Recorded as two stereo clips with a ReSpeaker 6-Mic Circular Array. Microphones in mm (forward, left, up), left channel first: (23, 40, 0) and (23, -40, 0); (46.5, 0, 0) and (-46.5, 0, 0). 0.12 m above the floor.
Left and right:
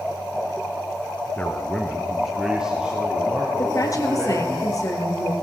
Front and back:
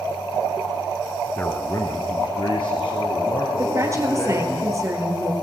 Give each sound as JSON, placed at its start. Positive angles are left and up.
{"t": 1.4, "sound": "a man speaking", "azimuth_deg": 55, "distance_m": 1.2}
{"t": 3.6, "sound": "a woman speaking", "azimuth_deg": 130, "distance_m": 2.5}